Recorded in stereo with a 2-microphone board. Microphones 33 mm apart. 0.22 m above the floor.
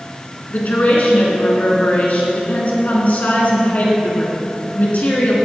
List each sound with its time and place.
0.5 s a woman speaking: 50° left (ahead or behind), 3 m